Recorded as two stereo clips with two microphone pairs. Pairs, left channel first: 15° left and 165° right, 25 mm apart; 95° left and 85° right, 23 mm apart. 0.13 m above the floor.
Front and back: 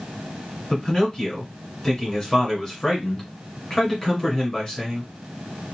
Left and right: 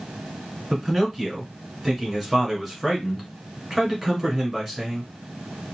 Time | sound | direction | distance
0.7 | a man speaking | straight ahead | 1.7 m